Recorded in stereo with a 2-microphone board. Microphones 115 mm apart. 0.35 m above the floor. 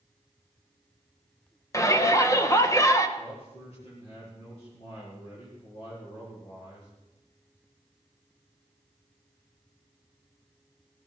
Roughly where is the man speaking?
Left.